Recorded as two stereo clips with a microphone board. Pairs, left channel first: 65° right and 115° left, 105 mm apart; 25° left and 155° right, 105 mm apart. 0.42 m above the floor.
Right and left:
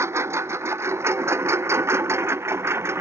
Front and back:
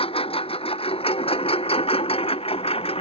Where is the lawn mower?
45° left.